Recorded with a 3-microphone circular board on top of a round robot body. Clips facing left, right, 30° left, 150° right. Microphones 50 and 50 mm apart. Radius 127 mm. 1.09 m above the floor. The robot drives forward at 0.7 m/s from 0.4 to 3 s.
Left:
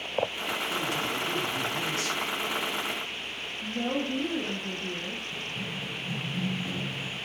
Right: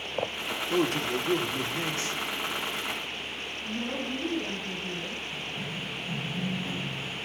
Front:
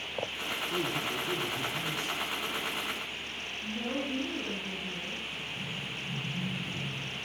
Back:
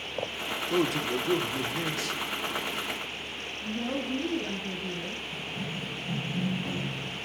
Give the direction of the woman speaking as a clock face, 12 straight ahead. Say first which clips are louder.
Left 4 dB, back 3 dB; 8 o'clock.